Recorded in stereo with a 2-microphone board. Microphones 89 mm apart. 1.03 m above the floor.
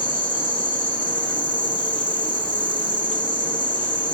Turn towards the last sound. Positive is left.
turn(degrees=15)  # may be behind; listen again after turning